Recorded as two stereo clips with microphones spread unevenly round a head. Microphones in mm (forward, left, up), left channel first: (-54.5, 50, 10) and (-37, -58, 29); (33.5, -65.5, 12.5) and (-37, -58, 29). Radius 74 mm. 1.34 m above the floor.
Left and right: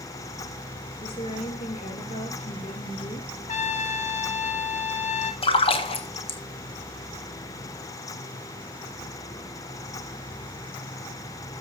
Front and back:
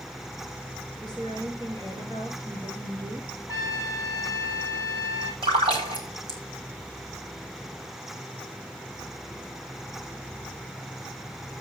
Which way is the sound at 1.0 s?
125° left.